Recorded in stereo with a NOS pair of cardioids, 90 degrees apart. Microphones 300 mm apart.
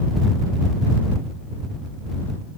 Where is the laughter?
No laughter in this recording.